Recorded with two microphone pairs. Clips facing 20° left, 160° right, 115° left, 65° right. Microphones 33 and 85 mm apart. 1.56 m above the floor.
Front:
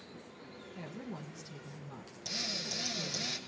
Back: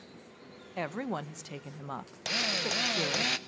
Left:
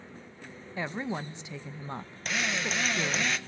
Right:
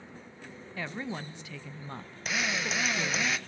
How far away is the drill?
About 0.7 m.